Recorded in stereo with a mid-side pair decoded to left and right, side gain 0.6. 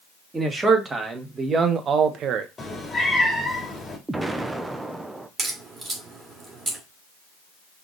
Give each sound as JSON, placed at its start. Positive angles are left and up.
{"t": 0.3, "sound": "a man speaking", "azimuth_deg": -15, "distance_m": 3.0}
{"t": 2.6, "sound": "a cat meowing", "azimuth_deg": 20, "distance_m": 3.0}
{"t": 4.1, "sound": "an explosion", "azimuth_deg": -15, "distance_m": 0.9}
{"t": 5.4, "sound": "a crack", "azimuth_deg": -25, "distance_m": 3.0}